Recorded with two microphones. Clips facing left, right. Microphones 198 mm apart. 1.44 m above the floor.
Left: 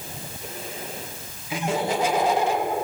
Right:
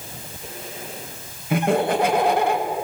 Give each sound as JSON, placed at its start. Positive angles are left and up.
{"t": 1.5, "sound": "laughter", "side_deg": -60, "distance_m": 2.5}